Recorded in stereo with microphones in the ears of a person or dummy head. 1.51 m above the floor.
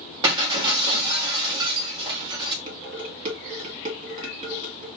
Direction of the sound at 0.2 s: 25° right (ahead or behind).